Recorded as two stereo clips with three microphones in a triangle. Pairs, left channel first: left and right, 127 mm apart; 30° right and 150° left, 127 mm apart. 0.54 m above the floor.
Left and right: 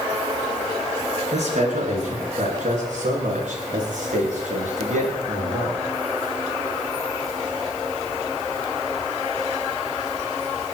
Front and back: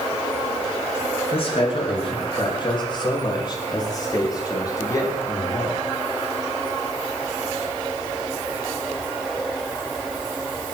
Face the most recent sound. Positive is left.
turn(degrees=-95)